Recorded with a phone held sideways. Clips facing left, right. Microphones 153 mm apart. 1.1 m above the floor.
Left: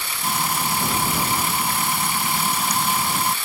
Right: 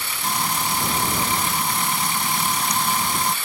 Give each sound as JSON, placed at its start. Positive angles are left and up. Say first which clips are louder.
{"t": 0.2, "sound": "frying", "louder": "left 1 dB", "side_deg": 5}